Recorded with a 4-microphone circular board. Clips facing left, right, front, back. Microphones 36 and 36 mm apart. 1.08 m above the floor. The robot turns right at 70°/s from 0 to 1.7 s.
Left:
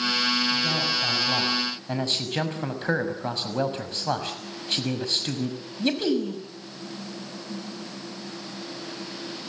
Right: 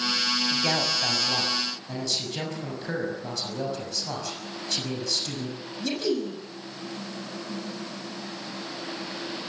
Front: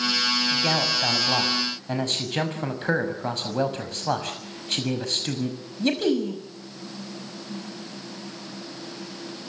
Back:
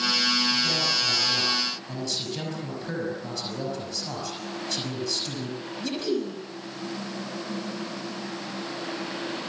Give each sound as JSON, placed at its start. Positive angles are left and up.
{"t": 0.5, "sound": "a man speaking", "azimuth_deg": -45, "distance_m": 6.0}